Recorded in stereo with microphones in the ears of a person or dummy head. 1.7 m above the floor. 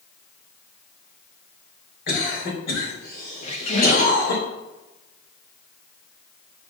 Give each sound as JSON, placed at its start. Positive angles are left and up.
{"t": 2.1, "sound": "a cough", "side_deg": 60, "distance_m": 3.0}
{"t": 3.4, "sound": "a squeak", "side_deg": 40, "distance_m": 1.4}